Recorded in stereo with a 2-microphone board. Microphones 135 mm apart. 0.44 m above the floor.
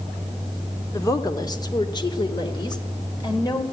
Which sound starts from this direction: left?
A woman speaking, at 0.9 s.